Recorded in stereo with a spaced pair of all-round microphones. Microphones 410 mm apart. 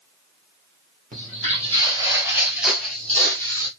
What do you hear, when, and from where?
1.1 s footsteps: 20° right (ahead or behind), 1.7 m; by 3.7 s 10° left (ahead or behind), 1.9 m